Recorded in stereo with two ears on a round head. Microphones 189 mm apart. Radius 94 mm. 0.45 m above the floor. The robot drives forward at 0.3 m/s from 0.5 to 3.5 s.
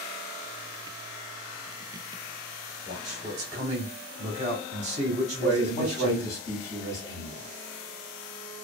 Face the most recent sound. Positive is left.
turn(degrees=15)  # may be behind; listen again after turning